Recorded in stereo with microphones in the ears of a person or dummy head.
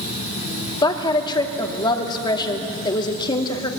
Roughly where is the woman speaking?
Left.